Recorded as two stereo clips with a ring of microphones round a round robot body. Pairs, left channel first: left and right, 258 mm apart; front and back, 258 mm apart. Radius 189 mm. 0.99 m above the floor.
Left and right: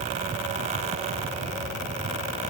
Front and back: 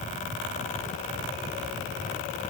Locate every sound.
Only background noise.